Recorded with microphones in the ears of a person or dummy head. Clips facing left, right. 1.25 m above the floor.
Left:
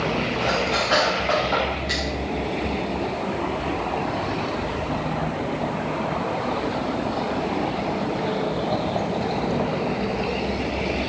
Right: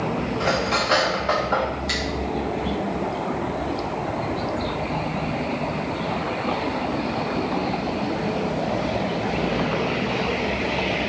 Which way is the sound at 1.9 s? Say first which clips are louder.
Even; 40° right (ahead or behind).